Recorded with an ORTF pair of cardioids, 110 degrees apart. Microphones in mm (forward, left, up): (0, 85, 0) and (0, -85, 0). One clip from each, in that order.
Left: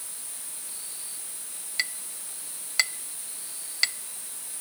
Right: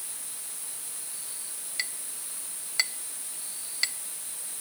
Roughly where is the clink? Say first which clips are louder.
Left 4 dB; ahead left.